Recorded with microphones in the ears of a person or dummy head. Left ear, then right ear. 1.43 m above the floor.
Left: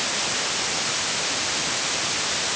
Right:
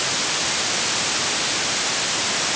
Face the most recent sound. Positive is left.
No sound to turn to.